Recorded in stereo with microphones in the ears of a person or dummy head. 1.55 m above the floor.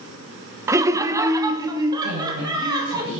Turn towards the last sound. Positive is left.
turn(degrees=-45)  # may be behind; listen again after turning